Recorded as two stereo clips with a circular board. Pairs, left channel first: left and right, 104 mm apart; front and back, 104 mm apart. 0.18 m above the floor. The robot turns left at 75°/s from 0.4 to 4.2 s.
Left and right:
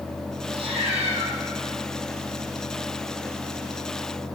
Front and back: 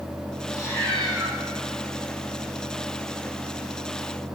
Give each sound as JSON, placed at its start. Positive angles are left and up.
{"t": 0.5, "sound": "a cat meowing", "azimuth_deg": -50, "distance_m": 1.8}